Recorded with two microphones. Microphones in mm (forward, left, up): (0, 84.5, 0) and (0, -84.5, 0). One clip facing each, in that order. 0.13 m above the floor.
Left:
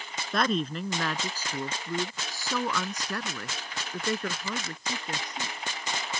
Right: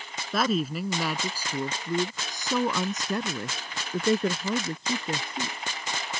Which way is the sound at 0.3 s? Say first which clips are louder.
Right 2 dB; 5° right (ahead or behind).